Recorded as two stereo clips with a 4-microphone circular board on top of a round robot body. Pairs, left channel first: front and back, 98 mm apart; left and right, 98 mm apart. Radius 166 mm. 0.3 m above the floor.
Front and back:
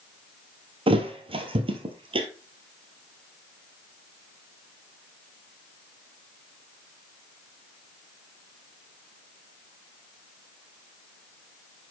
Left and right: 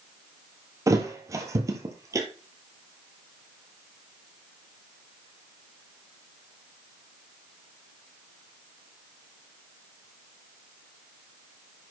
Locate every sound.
0.9 s a thud: 150° right, 1.0 m